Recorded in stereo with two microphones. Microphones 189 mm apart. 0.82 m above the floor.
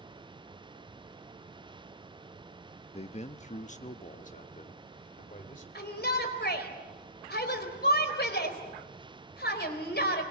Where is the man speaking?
35° left (ahead or behind), 0.6 m; by 5.7 s 45° left (ahead or behind), 2.5 m.